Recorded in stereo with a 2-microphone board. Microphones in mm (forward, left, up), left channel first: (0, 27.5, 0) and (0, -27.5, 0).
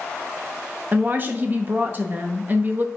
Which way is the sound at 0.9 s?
40° right (ahead or behind).